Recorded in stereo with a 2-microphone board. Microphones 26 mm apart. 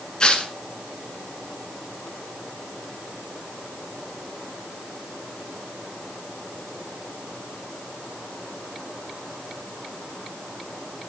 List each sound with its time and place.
0.2 s tearing paper: 35° left (ahead or behind), 1.4 m